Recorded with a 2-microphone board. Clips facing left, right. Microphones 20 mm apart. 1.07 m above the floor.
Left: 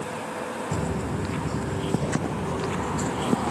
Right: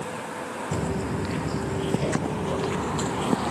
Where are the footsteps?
25° right (ahead or behind); by 3.5 s 50° right (ahead or behind).